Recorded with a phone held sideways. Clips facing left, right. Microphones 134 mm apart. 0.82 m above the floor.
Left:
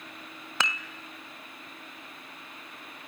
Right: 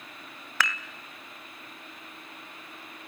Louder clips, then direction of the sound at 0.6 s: Right 1 dB; 20° left (ahead or behind).